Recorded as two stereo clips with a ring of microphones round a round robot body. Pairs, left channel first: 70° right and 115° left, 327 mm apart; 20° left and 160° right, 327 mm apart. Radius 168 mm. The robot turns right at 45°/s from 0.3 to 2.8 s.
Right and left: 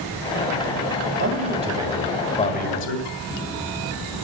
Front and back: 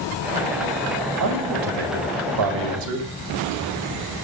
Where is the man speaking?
165° left, 3.5 m; by 3.1 s 120° right, 3.5 m.